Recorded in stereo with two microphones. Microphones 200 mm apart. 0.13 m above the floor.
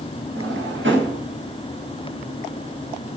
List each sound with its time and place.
0.3 s a drawer: 75° right (ahead or behind), 6.5 m